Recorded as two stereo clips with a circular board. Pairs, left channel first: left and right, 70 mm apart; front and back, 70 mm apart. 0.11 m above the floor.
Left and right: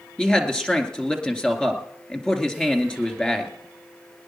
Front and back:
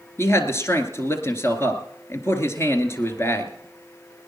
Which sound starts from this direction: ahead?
A man speaking, at 0.2 s.